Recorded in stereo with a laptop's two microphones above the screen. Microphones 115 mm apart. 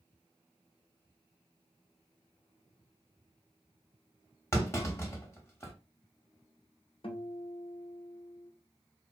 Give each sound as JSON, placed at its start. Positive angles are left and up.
{"t": 4.5, "sound": "a clunk", "side_deg": 25, "distance_m": 0.8}
{"t": 7.0, "sound": "a guitar", "side_deg": 50, "distance_m": 0.6}